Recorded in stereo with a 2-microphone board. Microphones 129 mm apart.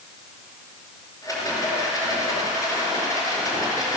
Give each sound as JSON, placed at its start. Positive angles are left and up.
{"t": 1.2, "sound": "a rattle", "side_deg": 25, "distance_m": 5.0}